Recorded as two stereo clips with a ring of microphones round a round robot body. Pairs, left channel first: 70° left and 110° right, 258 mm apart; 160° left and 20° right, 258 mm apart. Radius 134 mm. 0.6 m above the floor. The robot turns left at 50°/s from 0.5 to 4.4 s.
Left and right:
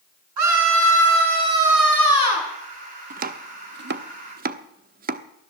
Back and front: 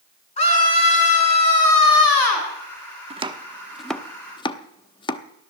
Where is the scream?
135° right, 8 m; by 2.5 s 125° left, 8 m.